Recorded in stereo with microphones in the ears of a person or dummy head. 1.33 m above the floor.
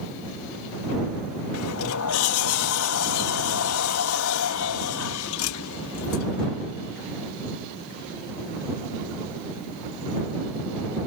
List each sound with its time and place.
1.5 s a sliding door: 75° left (ahead or behind)